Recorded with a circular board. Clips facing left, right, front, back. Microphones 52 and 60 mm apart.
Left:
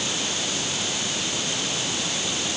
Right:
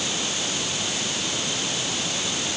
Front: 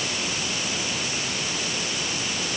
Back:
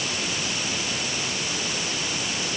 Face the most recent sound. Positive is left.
No sound to turn to.